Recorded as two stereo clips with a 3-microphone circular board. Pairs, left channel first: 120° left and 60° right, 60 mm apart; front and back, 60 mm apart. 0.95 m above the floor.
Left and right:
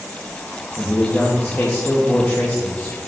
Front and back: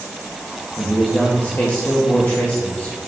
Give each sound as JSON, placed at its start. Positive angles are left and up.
{"t": 0.8, "sound": "a man speaking", "azimuth_deg": 55, "distance_m": 1.1}